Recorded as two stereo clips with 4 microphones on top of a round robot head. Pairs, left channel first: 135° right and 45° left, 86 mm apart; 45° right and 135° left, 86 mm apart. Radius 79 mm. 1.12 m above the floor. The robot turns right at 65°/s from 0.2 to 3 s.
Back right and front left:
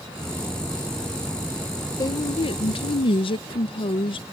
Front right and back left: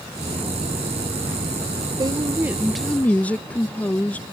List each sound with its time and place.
2.0 s a woman speaking: 175° left; by 4.2 s 120° right